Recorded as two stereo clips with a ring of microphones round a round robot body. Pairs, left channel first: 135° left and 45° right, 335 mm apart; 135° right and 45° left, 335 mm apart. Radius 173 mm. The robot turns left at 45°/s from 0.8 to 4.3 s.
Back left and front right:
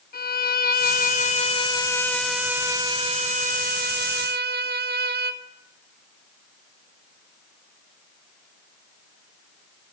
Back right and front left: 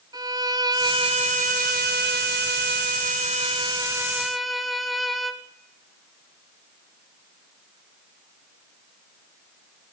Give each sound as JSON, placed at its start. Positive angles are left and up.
{"t": 0.1, "sound": "a violin", "azimuth_deg": 110, "distance_m": 0.9}